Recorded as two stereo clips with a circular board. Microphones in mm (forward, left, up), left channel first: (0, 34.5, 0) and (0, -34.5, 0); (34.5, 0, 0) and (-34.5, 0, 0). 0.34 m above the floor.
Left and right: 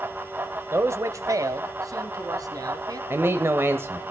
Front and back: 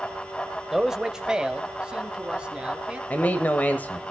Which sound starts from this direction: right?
A man speaking, at 0.7 s.